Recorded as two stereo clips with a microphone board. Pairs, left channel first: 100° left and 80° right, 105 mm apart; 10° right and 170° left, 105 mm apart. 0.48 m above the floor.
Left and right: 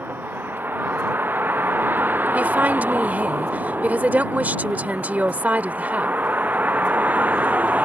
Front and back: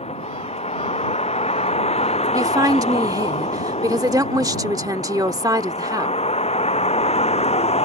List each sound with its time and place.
0.0 s a vehicle: 10° right; by 7.8 s 5° right
2.3 s a woman speaking: 150° right